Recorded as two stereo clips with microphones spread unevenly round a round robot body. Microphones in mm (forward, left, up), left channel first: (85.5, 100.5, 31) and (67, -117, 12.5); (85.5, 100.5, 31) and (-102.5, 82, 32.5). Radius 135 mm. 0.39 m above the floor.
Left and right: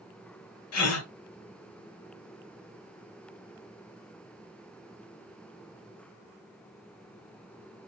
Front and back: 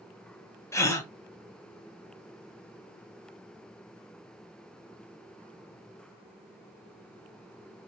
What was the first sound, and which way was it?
A gasp, 80° left.